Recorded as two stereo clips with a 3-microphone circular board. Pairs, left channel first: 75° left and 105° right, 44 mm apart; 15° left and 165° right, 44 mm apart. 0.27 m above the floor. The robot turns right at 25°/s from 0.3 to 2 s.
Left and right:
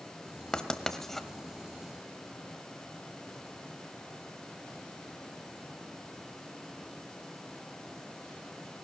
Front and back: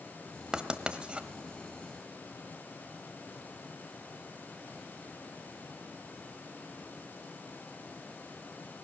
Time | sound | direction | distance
0.5 | writing | 135° left | 1.1 m